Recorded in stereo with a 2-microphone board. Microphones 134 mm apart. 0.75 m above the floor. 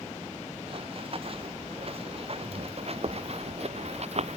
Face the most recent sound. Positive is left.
turn(degrees=-55)  # may be behind; listen again after turning